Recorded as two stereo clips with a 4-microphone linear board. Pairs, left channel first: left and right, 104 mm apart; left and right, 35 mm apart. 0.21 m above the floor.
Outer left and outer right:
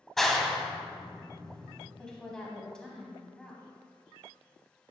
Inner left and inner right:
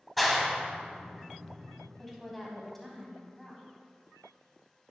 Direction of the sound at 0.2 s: 5° left (ahead or behind).